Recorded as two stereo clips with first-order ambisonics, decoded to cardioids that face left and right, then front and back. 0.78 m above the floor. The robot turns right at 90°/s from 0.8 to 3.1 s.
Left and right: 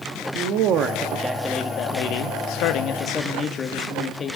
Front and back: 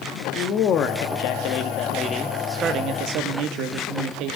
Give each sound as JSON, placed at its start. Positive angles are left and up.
{"t": 0.3, "sound": "a man speaking", "azimuth_deg": -50, "distance_m": 0.9}